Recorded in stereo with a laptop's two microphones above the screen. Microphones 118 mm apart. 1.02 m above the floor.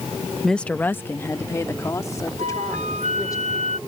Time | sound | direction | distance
0.4 | a woman speaking | centre (ahead or behind) | ?
2.4 | a flute | 85° right | ?